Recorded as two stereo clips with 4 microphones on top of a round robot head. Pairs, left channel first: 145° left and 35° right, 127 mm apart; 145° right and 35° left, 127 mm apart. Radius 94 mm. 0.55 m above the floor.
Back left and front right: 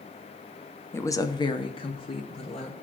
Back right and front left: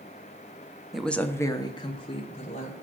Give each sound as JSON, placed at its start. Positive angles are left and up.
{"t": 0.9, "sound": "a woman speaking", "azimuth_deg": 115, "distance_m": 0.7}